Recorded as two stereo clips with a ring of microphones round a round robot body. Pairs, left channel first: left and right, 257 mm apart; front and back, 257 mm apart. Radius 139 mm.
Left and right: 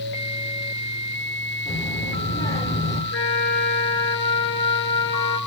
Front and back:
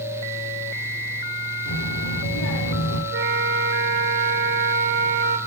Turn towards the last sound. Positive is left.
turn(degrees=145)